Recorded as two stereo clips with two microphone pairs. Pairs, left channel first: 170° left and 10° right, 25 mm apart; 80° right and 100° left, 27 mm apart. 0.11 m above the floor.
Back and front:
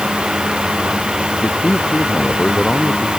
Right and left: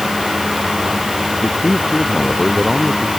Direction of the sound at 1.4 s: 135° right.